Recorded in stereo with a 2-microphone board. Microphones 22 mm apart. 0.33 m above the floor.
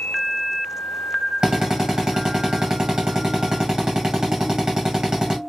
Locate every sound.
1.4 s a drill: 45° right (ahead or behind), 1.7 m